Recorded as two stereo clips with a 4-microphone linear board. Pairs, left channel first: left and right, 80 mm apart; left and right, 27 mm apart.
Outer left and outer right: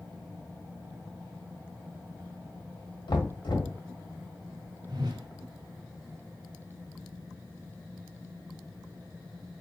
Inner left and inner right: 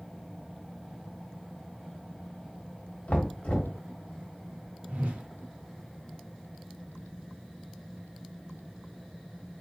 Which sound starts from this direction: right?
A whoosh, at 4.9 s.